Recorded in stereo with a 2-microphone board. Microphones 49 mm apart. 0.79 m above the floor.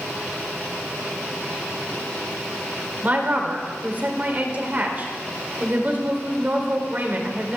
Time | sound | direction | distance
3.0 | a woman speaking | 40° right (ahead or behind) | 3.5 m